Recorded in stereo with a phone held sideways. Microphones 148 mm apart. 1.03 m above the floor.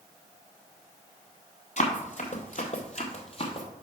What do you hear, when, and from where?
1.8 s running footsteps: 55° left (ahead or behind), 1.9 m; by 3.7 s 40° left (ahead or behind), 1.8 m